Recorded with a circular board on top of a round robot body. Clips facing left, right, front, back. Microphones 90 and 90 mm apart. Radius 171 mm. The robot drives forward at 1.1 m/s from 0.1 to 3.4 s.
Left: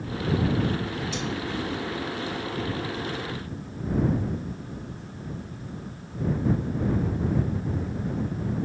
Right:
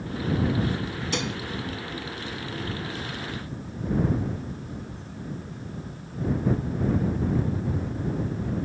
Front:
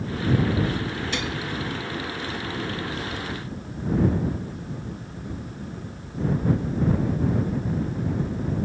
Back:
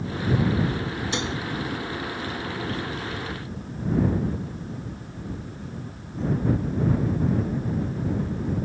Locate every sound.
1.1 s dishes clattering: 115° right